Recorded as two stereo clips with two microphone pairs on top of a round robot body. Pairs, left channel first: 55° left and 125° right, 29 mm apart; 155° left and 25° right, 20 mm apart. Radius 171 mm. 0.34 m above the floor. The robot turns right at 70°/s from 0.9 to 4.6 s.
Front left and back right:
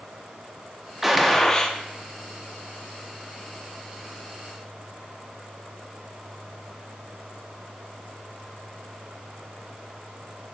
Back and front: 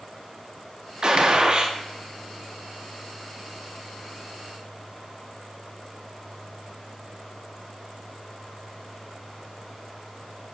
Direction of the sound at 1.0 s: 55° right.